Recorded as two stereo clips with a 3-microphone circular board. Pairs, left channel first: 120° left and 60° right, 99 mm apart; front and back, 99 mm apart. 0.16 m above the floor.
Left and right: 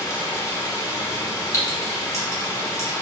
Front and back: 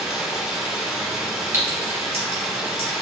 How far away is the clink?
About 1.2 m.